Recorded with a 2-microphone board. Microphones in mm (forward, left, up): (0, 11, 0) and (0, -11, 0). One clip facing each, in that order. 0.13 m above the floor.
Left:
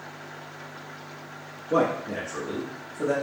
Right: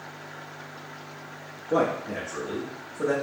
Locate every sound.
1.7 s a man speaking: 10° left (ahead or behind), 1.3 m; by 3.1 s 25° right (ahead or behind), 1.6 m